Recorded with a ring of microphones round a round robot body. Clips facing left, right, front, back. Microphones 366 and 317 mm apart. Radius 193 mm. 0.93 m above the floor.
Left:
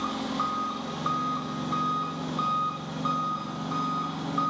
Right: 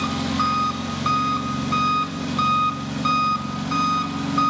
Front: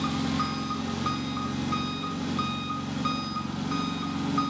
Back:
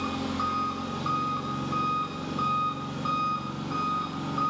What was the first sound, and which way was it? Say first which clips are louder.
An engine running: right 7 dB, front 3 dB; 55° right.